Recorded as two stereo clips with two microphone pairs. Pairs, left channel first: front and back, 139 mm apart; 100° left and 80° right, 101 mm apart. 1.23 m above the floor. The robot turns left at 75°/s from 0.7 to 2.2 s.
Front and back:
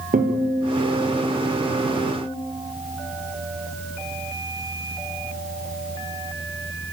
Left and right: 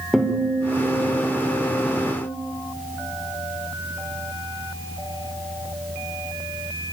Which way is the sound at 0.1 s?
175° right.